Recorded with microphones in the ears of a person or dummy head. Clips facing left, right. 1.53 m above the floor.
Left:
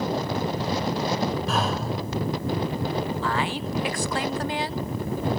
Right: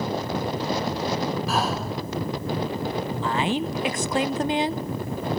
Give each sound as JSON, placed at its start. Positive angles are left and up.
{"t": 1.5, "sound": "breathing", "side_deg": -10, "distance_m": 3.0}
{"t": 3.1, "sound": "a woman speaking", "side_deg": -25, "distance_m": 0.6}